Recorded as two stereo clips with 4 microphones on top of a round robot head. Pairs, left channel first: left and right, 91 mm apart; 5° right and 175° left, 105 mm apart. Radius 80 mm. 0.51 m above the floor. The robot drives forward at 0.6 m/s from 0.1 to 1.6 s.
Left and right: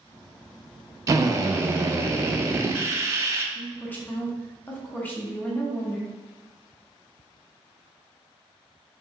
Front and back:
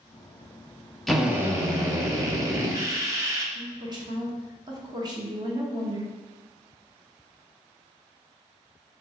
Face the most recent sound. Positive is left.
turn(degrees=150)